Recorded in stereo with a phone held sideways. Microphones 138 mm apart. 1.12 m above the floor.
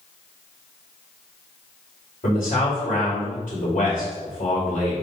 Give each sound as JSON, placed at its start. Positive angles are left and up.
{"t": 2.2, "sound": "a man speaking", "side_deg": 80, "distance_m": 2.5}